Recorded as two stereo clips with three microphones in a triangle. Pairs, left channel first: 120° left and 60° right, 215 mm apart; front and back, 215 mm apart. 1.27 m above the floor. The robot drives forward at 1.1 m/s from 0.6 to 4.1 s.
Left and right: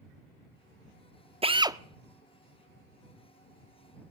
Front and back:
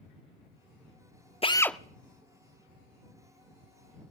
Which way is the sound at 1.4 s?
30° right.